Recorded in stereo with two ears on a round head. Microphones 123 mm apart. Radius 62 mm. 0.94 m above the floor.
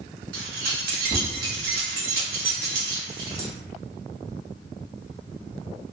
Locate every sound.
0.3 s keys jangling: 75° right (ahead or behind), 1.0 m